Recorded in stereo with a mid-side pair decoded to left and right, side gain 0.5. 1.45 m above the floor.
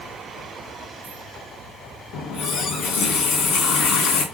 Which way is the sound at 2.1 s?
70° left.